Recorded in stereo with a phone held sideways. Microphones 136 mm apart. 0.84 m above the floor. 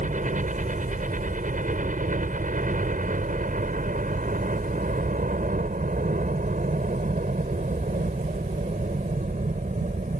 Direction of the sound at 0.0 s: 65° right (ahead or behind).